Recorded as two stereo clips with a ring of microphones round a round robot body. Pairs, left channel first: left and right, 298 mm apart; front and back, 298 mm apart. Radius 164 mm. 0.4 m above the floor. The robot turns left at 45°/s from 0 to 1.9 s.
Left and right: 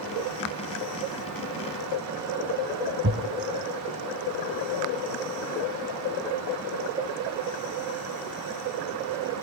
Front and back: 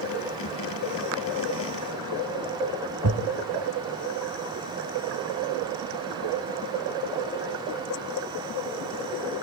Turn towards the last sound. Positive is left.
turn(degrees=-140)